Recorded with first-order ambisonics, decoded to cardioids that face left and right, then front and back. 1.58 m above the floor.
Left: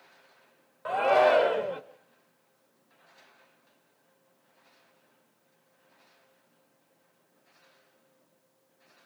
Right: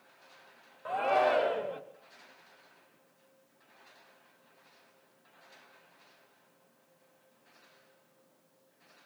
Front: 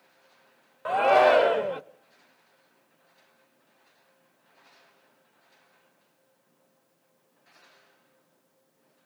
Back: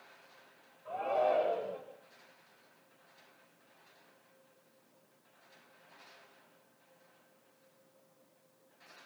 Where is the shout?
20° left, 1.1 m.